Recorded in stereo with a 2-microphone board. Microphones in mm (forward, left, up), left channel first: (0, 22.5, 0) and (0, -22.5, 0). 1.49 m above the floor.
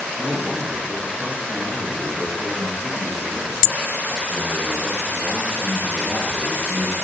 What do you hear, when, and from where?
0.2 s a man speaking: 5° right (ahead or behind), 6.5 m